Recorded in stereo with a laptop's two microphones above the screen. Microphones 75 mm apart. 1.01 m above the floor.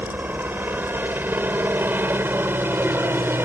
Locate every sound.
0.0 s a helicopter: 25° right (ahead or behind); by 3.5 s 30° right (ahead or behind)